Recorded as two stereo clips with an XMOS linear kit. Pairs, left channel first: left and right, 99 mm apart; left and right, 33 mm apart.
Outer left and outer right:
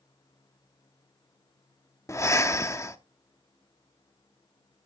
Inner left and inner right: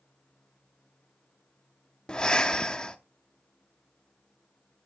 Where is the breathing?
30° left (ahead or behind), 0.7 m.